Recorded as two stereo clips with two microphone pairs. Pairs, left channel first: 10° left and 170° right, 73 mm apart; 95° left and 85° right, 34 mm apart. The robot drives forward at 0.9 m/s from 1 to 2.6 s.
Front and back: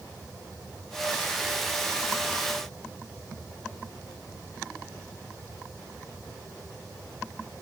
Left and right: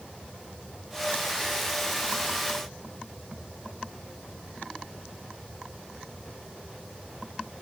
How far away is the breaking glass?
I don't hear breaking glass.